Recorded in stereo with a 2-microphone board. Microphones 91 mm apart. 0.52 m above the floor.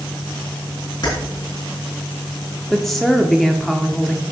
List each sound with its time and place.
1.0 s keys jangling: 50° left (ahead or behind), 4 m
2.7 s a woman speaking: centre (ahead or behind), 0.8 m